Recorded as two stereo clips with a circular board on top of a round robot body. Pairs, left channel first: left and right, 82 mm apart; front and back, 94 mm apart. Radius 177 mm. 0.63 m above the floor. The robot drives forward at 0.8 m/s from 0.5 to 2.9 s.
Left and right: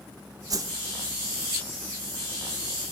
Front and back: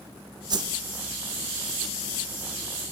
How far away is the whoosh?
About 0.8 m.